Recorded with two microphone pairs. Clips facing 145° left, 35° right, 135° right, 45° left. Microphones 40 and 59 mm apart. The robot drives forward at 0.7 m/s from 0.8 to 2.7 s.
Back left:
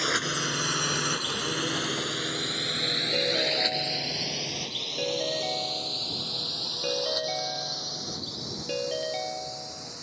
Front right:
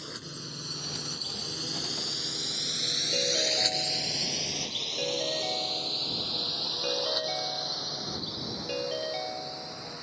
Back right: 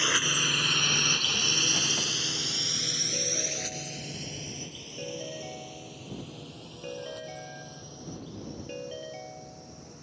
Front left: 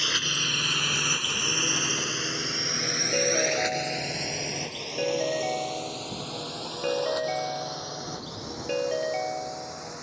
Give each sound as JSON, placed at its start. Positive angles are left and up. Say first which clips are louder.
{"t": 0.0, "sound": "a drone", "louder": "back left 15 dB, back right 1 dB", "azimuth_deg": 155}
{"t": 3.1, "sound": "a ringtone", "louder": "back left 1 dB, front left 13 dB", "azimuth_deg": 65}